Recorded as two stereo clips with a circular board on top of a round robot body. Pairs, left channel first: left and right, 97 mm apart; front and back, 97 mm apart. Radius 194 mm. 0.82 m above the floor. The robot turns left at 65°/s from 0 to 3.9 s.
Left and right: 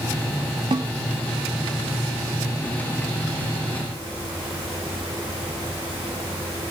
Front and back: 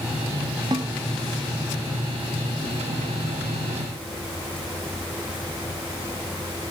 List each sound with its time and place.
0.7 s a snare drum: 130° right, 0.8 m; by 0.9 s 145° right, 0.8 m